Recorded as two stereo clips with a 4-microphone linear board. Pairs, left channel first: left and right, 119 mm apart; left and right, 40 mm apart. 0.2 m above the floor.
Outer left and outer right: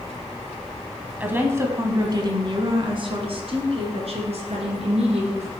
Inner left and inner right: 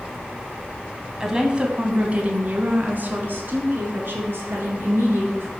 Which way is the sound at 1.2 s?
15° right (ahead or behind).